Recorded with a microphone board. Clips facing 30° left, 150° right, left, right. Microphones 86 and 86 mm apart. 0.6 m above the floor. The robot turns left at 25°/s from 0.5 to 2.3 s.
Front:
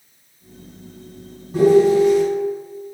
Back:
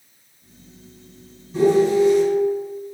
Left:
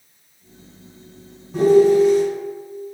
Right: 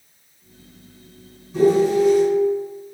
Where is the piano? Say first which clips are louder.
Front 3 dB, left 3 dB; 65° left, 1.4 m; by 2.2 s 45° left, 1.4 m.